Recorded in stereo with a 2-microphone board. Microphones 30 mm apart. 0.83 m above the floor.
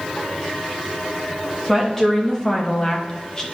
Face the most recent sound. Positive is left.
turn(degrees=25)  # may be behind; listen again after turning